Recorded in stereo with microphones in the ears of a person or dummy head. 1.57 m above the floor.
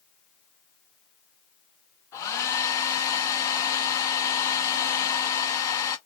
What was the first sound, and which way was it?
A hair dryer, 20° left (ahead or behind).